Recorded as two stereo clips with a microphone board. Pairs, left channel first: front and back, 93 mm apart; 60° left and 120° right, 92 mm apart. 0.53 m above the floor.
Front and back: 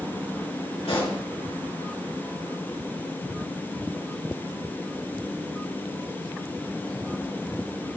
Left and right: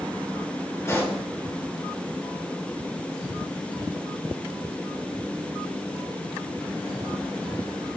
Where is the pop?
Straight ahead, 4.5 m.